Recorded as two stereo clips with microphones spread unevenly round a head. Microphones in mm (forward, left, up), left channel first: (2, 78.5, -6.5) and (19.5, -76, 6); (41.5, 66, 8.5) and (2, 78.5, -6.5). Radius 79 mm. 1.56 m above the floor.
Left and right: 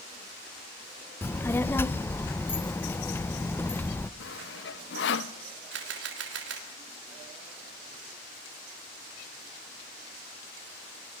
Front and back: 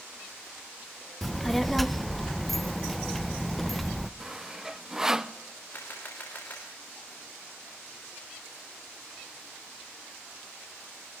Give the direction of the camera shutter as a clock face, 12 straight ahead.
3 o'clock.